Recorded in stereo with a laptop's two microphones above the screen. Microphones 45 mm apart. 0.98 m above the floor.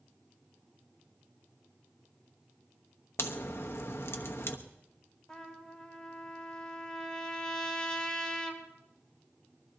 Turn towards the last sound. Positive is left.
turn(degrees=15)  # may be behind; listen again after turning